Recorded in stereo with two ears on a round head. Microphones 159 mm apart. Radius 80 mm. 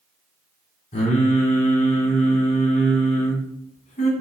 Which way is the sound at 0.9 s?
40° left (ahead or behind).